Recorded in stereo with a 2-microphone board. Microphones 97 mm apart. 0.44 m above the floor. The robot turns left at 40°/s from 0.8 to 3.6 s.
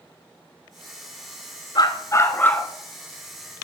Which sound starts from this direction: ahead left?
A dog barking, at 1.8 s.